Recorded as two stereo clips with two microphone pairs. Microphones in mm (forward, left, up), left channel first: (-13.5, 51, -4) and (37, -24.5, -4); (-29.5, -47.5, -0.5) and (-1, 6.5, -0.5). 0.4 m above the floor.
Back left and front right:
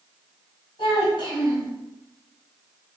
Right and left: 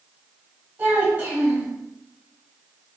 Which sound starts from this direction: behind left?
A child speaking, at 0.8 s.